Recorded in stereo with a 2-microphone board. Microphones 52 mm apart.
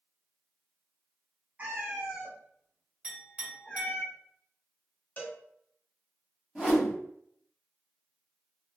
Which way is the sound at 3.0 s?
20° right (ahead or behind).